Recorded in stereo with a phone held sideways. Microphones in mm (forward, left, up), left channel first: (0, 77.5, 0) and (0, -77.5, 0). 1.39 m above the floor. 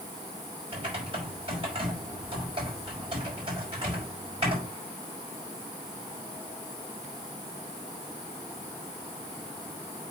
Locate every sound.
0.7 s typing on a keyboard: 40° right (ahead or behind), 5 m